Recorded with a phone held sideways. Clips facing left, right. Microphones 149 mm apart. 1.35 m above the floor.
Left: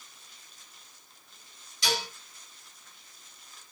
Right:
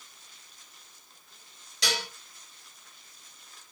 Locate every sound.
1.8 s dishes clattering: 75° right (ahead or behind), 4 m